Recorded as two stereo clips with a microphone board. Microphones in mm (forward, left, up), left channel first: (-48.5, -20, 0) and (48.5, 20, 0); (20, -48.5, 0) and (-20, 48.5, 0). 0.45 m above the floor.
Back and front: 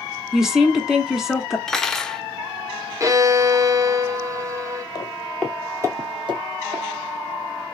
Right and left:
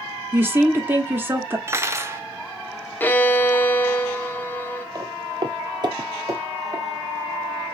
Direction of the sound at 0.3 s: 100° left.